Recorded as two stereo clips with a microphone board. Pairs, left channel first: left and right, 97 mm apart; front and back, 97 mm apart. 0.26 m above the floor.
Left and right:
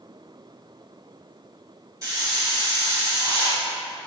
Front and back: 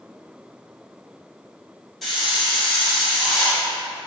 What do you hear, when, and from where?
2.0 s a hiss: 90° right, 1.1 m